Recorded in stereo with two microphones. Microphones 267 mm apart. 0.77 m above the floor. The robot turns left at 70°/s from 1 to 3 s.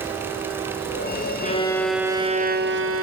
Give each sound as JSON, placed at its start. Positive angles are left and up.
{"t": 1.4, "sound": "a violin", "azimuth_deg": 35, "distance_m": 0.7}